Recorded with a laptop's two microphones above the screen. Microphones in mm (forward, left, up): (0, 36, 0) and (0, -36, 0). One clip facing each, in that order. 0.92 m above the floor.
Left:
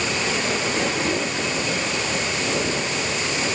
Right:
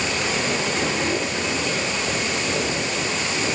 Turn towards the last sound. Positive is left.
No sound to turn to.